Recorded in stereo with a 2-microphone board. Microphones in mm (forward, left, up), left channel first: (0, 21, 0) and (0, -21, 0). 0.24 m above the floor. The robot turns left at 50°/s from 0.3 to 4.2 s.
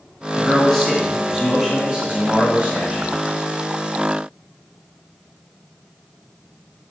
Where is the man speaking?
10° left (ahead or behind), 1.7 m; by 3.2 s 25° right (ahead or behind), 1.7 m.